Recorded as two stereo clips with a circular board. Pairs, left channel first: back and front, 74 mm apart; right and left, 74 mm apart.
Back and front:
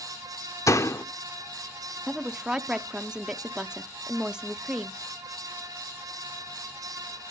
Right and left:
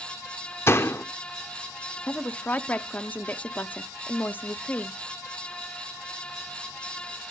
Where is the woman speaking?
65° right, 0.6 m.